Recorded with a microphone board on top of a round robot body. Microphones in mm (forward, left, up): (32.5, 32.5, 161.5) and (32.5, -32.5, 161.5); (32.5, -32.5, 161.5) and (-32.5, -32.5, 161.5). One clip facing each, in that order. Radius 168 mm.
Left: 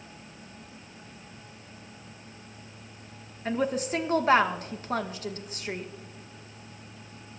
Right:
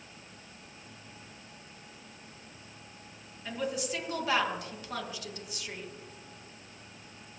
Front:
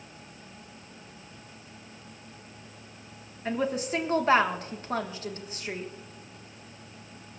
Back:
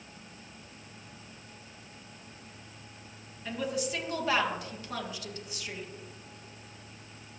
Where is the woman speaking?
50° left, 1.4 m.